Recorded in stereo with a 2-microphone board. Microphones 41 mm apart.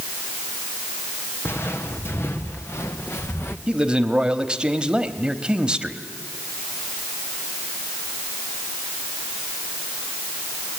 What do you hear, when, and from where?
1.4 s footsteps: 70° left (ahead or behind), 2.5 m
3.7 s a man speaking: 20° right (ahead or behind), 1.0 m